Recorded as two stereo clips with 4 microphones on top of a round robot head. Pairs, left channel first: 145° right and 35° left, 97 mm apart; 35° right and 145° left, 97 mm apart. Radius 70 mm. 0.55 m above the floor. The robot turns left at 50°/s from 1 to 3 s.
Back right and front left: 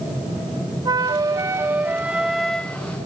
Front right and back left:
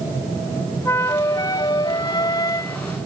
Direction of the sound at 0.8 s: 15° left.